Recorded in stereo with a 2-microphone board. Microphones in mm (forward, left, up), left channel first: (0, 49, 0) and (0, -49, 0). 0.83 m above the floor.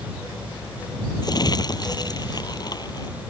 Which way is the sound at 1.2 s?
45° left (ahead or behind).